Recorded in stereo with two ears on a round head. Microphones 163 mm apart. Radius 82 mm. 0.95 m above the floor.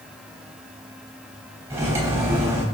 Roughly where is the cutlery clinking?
Centre.